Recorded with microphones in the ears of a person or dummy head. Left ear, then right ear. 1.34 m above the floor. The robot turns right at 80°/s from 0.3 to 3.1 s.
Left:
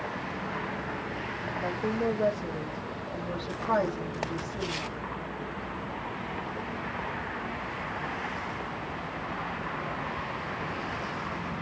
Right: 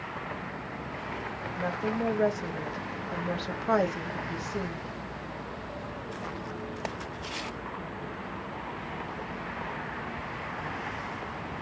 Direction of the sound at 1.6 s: 160° right.